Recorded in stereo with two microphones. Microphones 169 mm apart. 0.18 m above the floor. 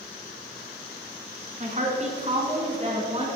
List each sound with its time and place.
1.6 s a woman speaking: 45° right (ahead or behind), 2 m; by 3.3 s 35° right (ahead or behind), 2.5 m